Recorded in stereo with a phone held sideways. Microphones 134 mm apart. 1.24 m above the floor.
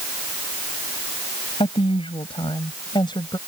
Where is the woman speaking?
40° left (ahead or behind); by 3.4 s 30° left (ahead or behind).